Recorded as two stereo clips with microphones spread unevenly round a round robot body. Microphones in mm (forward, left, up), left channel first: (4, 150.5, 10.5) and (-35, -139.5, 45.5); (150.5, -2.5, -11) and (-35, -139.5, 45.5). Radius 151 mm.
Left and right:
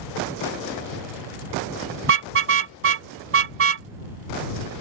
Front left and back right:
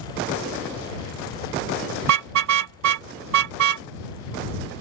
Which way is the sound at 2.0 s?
150° right.